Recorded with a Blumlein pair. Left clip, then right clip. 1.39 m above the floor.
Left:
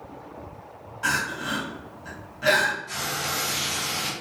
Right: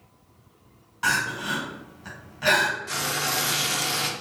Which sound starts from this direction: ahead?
Crying, at 1.0 s.